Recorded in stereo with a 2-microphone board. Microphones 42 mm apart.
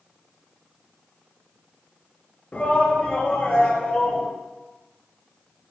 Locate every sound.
2.5 s a shout: 35° left (ahead or behind), 2 m; by 4.3 s 20° left (ahead or behind), 1.5 m